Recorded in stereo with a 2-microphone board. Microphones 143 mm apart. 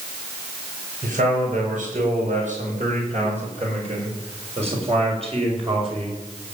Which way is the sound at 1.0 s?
65° right (ahead or behind).